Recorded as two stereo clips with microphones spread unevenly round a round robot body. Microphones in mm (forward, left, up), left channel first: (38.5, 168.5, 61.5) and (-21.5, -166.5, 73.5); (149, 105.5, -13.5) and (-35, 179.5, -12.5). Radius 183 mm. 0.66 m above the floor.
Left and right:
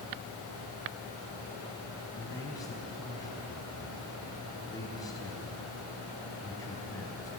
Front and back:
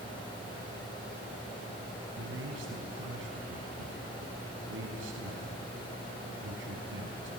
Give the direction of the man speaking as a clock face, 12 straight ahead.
7 o'clock.